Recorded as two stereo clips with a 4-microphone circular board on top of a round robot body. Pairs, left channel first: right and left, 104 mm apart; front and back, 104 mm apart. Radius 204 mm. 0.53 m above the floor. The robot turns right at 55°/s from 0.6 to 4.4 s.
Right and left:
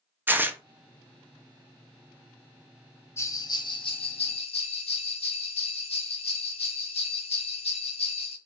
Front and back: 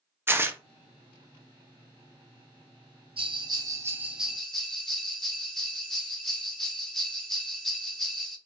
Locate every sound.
0.3 s tearing paper: 140° left, 0.6 m
3.2 s a bell: 155° right, 0.8 m; by 8.4 s 85° right, 0.8 m